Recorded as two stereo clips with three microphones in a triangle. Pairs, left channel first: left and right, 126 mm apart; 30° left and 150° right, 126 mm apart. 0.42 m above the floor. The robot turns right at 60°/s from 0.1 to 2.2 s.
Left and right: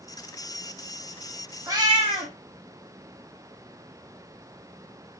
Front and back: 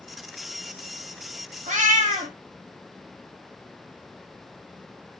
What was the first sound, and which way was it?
A cat meowing, 155° right.